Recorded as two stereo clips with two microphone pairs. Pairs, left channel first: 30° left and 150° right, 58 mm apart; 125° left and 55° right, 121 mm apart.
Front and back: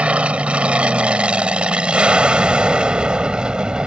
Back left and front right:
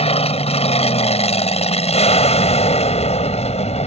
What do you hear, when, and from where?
0.0 s an aircraft: 145° left; by 3.9 s 140° left